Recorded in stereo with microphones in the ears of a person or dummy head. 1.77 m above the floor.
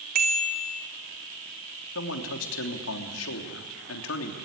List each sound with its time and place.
0.1 s a bicycle bell: 45° right (ahead or behind), 3 m
1.9 s a man speaking: 75° left (ahead or behind), 3 m